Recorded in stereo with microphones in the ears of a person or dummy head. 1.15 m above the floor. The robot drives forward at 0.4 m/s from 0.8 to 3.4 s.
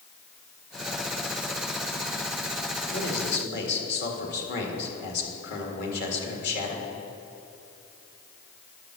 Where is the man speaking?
60° left (ahead or behind), 1.9 m; by 6.9 s 65° left (ahead or behind), 1.8 m.